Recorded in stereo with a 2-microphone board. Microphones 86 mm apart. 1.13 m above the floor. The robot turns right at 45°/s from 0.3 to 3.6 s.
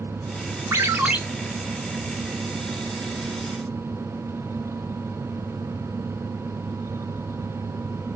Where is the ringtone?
35° right (ahead or behind), 1.6 m; by 1.2 s 15° right (ahead or behind), 1.6 m.